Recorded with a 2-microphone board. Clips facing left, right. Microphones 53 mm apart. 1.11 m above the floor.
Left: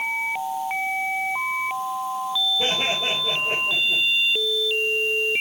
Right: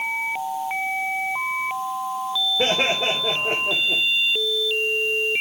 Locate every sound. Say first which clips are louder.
2.6 s laughter: right 3 dB; 60° right (ahead or behind), 3 m; by 4.0 s 85° right, 2.5 m